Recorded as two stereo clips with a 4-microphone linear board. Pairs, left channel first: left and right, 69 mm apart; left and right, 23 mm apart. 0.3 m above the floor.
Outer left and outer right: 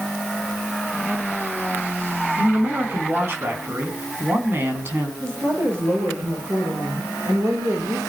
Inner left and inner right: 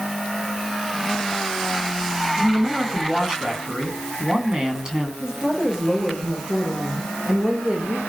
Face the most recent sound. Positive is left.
turn(degrees=-45)  # may be behind; listen again after turning